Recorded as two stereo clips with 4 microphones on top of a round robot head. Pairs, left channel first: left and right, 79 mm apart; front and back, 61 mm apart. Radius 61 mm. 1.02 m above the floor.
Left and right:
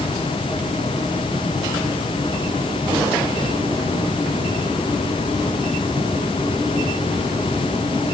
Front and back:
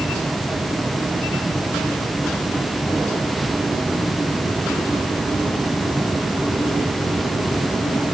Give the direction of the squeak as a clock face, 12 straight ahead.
No squeak in this recording.